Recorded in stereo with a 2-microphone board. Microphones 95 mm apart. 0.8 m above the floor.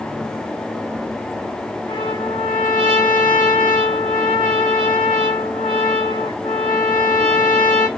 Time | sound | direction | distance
1.9 | a trumpet | 60° left (ahead or behind) | 1.2 m